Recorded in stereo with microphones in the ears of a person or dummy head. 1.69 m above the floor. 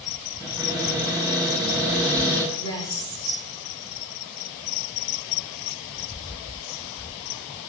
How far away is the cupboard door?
About 9.5 m.